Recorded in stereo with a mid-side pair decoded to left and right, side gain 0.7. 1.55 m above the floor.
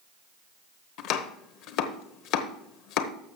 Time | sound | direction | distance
1.0 | chopping | 60° left | 0.9 m